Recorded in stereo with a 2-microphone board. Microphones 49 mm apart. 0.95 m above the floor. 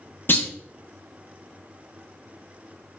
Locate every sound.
0.3 s a clunk: 45° left (ahead or behind), 0.5 m